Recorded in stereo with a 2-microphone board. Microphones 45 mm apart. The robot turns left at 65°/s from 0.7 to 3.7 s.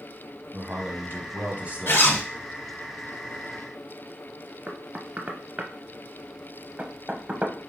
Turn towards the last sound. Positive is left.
turn(degrees=-35)  # may be behind; listen again after turning